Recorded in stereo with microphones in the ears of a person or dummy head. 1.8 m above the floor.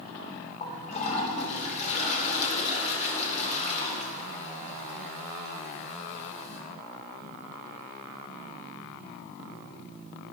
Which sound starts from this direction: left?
A toilet flushing, at 0.6 s.